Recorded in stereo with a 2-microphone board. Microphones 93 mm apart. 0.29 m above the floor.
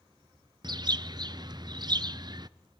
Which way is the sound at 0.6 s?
50° right (ahead or behind).